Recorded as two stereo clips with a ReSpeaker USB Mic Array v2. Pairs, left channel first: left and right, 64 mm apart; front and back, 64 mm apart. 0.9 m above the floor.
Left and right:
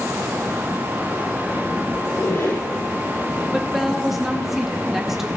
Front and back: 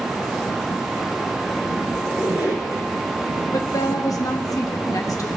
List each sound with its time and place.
2.0 s a squeak: 115° left, 4.5 m
3.5 s a woman speaking: 5° right, 1.2 m